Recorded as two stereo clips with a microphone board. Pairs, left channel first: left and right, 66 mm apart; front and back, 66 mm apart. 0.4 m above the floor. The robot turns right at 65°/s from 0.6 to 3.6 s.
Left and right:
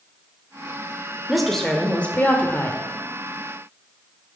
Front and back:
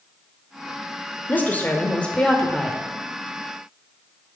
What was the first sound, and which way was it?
A woman speaking, 5° right.